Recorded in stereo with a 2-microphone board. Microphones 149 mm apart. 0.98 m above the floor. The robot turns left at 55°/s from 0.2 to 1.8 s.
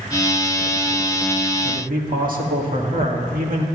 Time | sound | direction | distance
1.6 | a man speaking | 65° right (ahead or behind) | 2.0 m